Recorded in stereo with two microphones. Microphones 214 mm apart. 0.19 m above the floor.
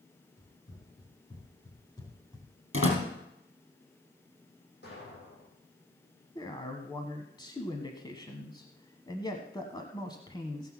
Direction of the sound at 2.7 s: 70° left (ahead or behind).